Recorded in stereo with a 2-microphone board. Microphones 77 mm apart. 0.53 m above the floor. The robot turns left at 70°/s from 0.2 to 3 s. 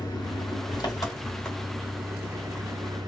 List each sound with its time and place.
0.0 s an engine running: 105° left, 2.0 m; by 3.1 s 90° right, 2.0 m